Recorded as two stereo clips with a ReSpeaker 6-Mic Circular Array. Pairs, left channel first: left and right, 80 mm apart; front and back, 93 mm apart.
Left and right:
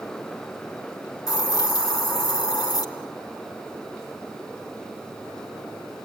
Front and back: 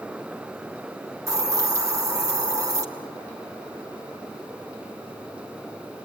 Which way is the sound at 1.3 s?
125° left.